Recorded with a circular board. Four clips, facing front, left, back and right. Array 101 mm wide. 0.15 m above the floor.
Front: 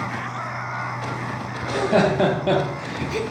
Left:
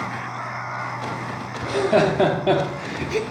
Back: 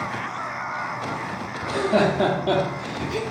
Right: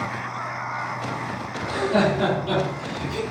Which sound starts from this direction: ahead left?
Laughter, at 1.6 s.